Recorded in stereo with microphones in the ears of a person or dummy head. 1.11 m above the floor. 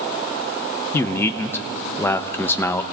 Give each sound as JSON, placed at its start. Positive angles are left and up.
{"t": 0.9, "sound": "a man speaking", "side_deg": 10, "distance_m": 0.5}